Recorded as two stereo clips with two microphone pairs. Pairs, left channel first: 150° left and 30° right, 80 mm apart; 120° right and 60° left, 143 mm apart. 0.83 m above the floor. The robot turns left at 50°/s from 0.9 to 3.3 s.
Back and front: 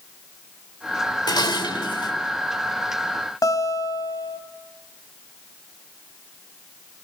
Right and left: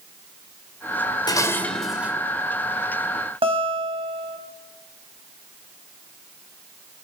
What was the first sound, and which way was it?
Dishes clattering, straight behind.